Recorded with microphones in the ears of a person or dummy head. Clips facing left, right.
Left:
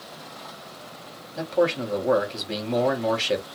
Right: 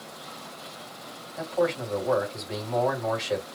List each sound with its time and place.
1.4 s a man speaking: 40° left (ahead or behind), 1.8 m